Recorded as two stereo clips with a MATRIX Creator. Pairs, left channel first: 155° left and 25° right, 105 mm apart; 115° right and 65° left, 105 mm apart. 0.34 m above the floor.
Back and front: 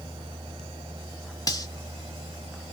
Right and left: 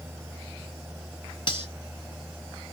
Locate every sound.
1.5 s cutlery clinking: 150° right, 1.3 m